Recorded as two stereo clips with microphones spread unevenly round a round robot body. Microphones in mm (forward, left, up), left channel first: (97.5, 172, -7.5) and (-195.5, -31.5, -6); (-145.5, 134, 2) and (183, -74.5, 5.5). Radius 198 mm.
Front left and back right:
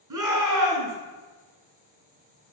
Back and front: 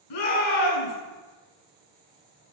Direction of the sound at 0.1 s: 175° left.